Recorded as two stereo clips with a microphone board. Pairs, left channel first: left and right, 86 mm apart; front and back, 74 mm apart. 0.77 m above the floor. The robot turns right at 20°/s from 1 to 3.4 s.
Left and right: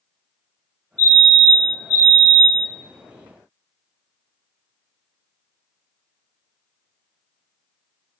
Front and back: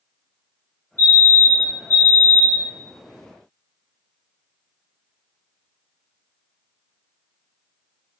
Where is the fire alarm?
155° left, 1.9 m; by 2.7 s 170° right, 1.9 m.